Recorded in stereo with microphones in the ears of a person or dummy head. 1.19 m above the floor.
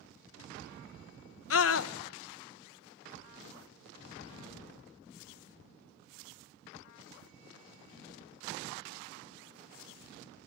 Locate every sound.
1.5 s a scream: 75° left (ahead or behind), 0.9 m